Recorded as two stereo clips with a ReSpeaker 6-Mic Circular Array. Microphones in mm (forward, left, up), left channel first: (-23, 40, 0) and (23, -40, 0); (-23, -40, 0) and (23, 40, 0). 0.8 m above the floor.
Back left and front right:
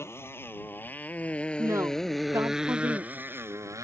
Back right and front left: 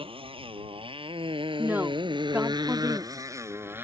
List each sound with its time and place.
0.0 s a motorcycle: 55° left; by 3.8 s 5° right
1.6 s a woman speaking: 5° right